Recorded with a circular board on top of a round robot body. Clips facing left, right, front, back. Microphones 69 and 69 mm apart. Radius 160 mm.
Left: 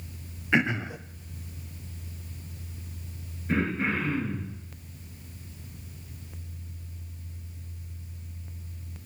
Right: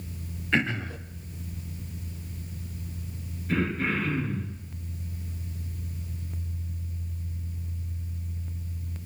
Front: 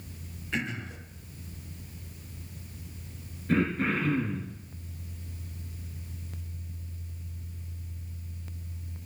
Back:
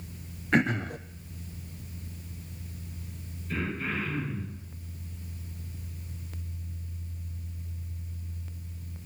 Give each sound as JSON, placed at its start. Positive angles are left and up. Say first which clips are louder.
{"t": 0.5, "sound": "throat clearing", "louder": "left 2 dB, back 8 dB", "azimuth_deg": 160, "distance_m": 0.8}
{"t": 3.5, "sound": "throat clearing", "louder": "even, front 6 dB", "azimuth_deg": 25, "distance_m": 6.5}